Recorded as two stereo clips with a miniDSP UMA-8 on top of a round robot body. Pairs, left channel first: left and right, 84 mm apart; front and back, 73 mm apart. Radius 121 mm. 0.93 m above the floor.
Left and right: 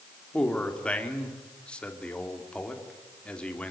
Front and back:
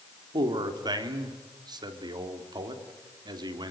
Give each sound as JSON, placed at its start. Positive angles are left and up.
{"t": 0.3, "sound": "a man speaking", "azimuth_deg": 165, "distance_m": 3.5}